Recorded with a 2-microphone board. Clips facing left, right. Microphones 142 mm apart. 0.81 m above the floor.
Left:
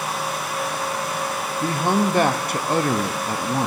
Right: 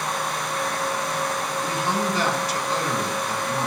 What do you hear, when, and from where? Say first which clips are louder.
1.6 s a man speaking: left 6 dB; 50° left (ahead or behind), 0.8 m